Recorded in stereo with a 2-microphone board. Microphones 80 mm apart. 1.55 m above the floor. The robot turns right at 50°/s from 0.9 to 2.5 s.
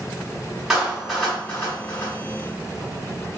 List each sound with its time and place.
0.7 s a clap: 5° right (ahead or behind), 2 m; by 2.1 s 55° left (ahead or behind), 2 m